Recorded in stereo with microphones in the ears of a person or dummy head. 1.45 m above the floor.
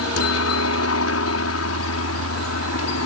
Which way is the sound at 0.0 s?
70° left (ahead or behind).